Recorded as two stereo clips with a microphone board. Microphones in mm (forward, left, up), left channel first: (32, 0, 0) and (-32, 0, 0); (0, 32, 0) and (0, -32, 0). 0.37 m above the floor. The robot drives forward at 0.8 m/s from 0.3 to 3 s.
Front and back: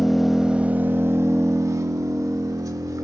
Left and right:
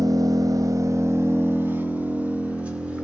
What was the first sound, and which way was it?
An engine running, 95° right.